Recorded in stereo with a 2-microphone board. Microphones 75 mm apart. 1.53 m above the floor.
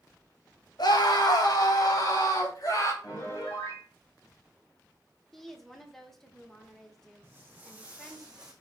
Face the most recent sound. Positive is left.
turn(degrees=-10)  # may be behind; listen again after turning